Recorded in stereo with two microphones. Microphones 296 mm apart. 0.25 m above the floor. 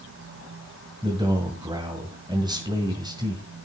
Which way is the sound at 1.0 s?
15° right (ahead or behind).